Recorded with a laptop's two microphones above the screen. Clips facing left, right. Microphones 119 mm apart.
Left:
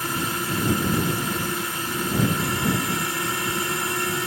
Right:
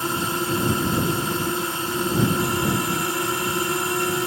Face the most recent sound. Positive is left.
turn(degrees=-25)  # may be behind; listen again after turning